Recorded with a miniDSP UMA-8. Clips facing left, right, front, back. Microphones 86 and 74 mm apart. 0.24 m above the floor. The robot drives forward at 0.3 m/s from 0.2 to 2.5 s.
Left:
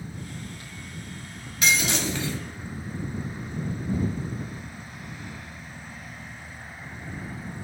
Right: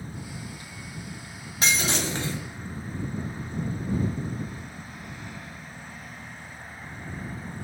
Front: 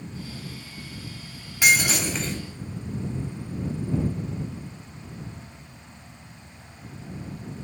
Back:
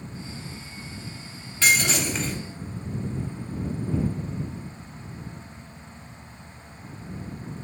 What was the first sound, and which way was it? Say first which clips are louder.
Breaking glass: left 1 dB, front 1 dB; 70° right.